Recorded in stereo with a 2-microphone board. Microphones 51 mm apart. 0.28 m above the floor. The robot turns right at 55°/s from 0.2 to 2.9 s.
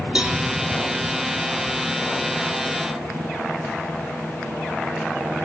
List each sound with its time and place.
0.1 s a cowbell: 20° right (ahead or behind), 2.5 m; by 0.4 s 30° right (ahead or behind), 2.5 m